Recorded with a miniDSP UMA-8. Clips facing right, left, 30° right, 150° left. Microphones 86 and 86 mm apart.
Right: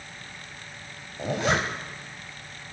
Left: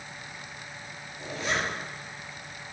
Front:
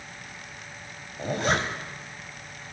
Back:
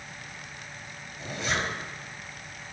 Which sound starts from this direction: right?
A zipper, at 1.2 s.